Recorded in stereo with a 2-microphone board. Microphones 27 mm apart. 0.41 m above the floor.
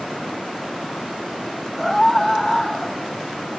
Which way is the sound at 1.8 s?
Centre (ahead or behind).